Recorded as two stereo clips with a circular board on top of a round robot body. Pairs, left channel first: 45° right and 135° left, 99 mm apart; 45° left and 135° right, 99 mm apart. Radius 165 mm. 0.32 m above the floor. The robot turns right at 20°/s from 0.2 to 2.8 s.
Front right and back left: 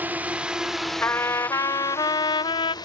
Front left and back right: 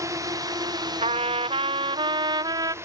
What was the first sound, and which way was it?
A drone, 165° right.